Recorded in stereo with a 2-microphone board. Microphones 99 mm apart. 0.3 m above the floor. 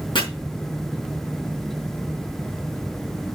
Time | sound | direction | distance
0.1 | chopping | 50° left (ahead or behind) | 4 m